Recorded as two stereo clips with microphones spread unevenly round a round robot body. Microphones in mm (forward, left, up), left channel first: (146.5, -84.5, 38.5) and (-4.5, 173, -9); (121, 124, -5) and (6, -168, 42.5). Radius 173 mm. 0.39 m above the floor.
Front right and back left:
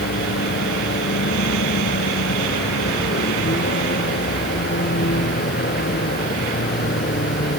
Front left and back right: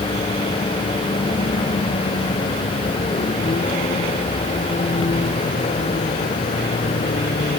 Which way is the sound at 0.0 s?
5° right.